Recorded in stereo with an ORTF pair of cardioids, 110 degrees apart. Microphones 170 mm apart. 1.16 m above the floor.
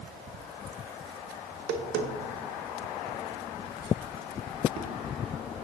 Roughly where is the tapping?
Right.